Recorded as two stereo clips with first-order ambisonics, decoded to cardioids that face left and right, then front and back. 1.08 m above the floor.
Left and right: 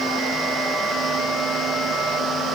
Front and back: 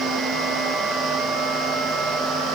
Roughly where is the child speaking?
No child speaking in this recording.